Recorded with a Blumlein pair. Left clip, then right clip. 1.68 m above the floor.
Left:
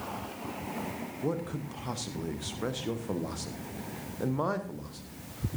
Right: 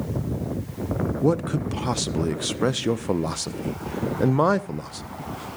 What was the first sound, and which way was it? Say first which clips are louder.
A man speaking: right 10 dB; 60° right.